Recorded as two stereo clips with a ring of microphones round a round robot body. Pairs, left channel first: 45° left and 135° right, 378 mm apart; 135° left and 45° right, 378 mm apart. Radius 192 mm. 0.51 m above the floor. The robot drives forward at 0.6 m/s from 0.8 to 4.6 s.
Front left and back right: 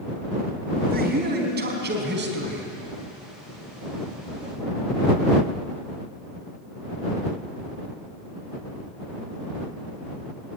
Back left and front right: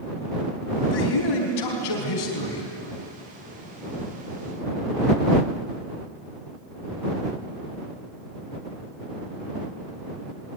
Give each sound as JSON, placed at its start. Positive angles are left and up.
{"t": 0.9, "sound": "a man speaking", "azimuth_deg": 160, "distance_m": 4.0}